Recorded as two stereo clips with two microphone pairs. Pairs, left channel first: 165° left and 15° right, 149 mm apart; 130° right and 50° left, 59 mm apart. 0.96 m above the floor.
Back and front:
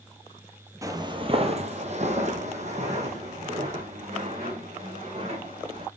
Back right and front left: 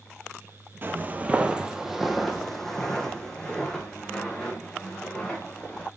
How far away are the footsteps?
About 1.1 m.